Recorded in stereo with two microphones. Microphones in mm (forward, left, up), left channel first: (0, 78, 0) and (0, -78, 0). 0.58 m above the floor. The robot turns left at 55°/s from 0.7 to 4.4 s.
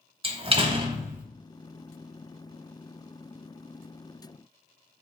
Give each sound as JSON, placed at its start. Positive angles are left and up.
{"t": 0.2, "sound": "a door slam", "azimuth_deg": -145, "distance_m": 0.8}